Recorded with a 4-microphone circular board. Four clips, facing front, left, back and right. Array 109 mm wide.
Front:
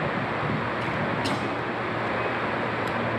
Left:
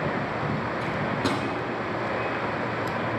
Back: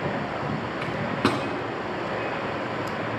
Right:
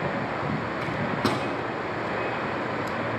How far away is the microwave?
About 1.7 m.